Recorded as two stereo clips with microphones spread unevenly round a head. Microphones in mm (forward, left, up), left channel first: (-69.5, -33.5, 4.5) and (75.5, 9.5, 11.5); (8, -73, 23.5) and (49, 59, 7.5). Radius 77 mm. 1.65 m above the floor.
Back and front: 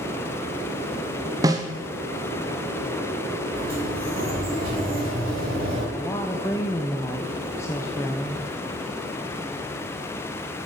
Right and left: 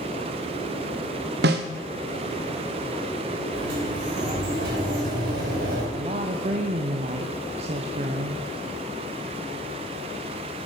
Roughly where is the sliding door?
Left.